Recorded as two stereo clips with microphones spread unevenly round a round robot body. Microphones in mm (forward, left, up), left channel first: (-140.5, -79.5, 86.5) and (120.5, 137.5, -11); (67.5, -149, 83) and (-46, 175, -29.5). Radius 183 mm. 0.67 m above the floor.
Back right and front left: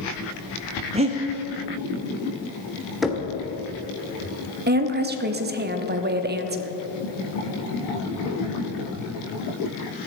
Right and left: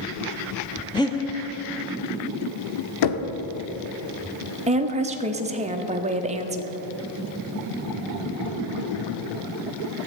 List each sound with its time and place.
0.9 s breathing: 25° left, 1.3 m
3.0 s knocking: 45° right, 1.1 m
4.7 s a woman speaking: 65° left, 1.3 m